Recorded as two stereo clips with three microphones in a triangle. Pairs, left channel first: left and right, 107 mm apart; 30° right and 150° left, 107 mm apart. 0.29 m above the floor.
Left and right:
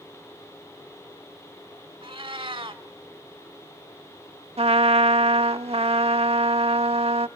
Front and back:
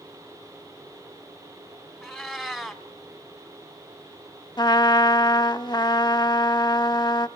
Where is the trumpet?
80° right, 0.5 m.